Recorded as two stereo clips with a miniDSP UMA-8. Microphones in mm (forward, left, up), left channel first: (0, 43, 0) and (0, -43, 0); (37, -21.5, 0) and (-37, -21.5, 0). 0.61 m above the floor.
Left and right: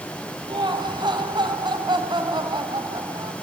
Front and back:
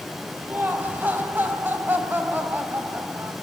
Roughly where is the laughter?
Behind right.